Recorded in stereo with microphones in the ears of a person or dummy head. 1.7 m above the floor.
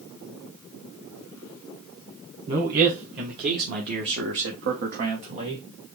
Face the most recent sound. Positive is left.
turn(degrees=-25)  # may be behind; listen again after turning